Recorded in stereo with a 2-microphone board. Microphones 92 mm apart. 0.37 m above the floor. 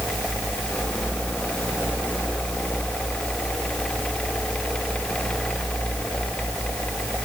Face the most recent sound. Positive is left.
No sound to turn to.